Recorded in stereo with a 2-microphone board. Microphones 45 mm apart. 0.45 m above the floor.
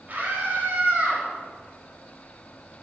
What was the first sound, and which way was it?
A scream, 45° right (ahead or behind).